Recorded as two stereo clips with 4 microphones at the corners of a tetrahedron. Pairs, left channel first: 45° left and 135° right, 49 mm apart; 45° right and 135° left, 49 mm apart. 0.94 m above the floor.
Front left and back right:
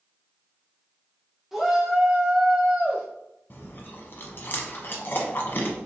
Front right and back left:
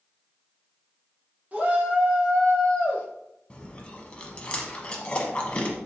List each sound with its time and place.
1.5 s a shout: 140° left, 0.9 m; by 3.0 s 95° right, 0.9 m
3.5 s chewing: 15° left, 0.8 m